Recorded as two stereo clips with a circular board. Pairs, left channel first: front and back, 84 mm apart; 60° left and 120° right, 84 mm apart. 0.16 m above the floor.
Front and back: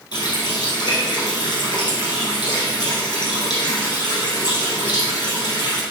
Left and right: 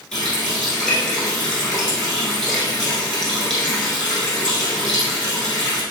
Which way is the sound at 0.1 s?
25° right.